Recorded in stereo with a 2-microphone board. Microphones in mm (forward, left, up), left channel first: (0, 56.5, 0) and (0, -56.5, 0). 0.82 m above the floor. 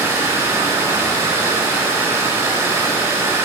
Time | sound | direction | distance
0.0 | running water | 25° right (ahead or behind) | 1.0 m